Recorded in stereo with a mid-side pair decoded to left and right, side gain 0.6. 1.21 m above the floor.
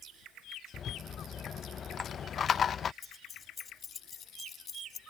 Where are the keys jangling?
30° left.